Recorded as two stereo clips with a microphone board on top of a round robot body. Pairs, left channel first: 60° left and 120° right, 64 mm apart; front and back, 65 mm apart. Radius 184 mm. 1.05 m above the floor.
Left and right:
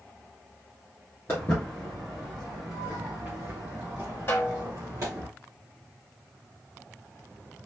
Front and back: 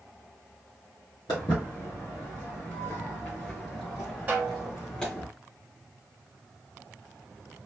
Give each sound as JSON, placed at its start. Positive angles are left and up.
{"t": 1.3, "sound": "footsteps", "azimuth_deg": 5, "distance_m": 1.1}
{"t": 4.3, "sound": "a snare drum", "azimuth_deg": 115, "distance_m": 0.8}